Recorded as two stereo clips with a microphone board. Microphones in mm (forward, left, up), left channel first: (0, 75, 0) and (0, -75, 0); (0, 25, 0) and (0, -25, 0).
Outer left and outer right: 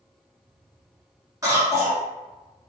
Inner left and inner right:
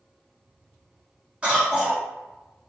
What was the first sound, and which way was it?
A cough, 20° right (ahead or behind).